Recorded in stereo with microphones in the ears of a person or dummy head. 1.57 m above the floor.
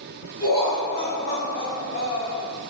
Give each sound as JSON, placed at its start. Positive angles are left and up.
{"t": 0.4, "sound": "laughter", "side_deg": 20, "distance_m": 1.0}